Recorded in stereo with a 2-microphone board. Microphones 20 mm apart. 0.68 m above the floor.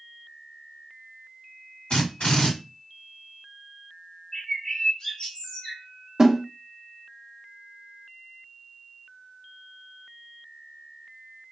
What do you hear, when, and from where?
1.9 s a drill: 70° left (ahead or behind), 1.8 m
4.3 s a bird: 50° left (ahead or behind), 1.1 m
6.2 s a snare drum: 25° right (ahead or behind), 0.5 m